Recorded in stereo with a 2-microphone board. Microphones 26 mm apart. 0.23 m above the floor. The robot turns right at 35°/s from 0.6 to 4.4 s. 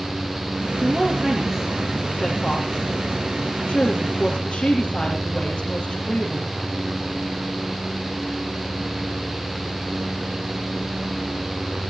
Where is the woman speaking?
65° right, 4.5 m; by 6.6 s 65° left, 4.5 m.